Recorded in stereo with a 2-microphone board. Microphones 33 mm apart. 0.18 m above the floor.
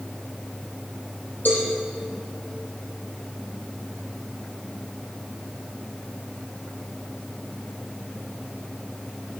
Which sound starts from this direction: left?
A cowbell, at 1.4 s.